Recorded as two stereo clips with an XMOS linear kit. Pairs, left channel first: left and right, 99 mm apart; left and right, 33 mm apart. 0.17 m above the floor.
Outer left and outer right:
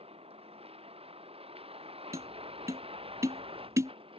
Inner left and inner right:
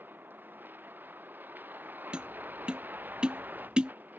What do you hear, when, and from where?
0.0 s a vehicle: 85° right; by 4.2 s 70° right (ahead or behind)
2.1 s tapping: 30° right (ahead or behind)